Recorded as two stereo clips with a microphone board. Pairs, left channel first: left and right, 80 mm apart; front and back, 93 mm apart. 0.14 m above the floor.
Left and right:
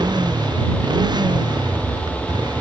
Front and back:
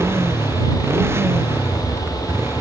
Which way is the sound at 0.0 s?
115° right.